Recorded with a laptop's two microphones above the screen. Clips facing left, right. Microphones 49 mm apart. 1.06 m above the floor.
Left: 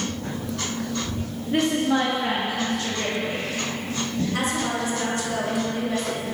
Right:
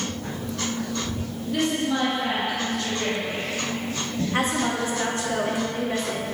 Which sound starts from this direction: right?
A woman speaking, at 4.3 s.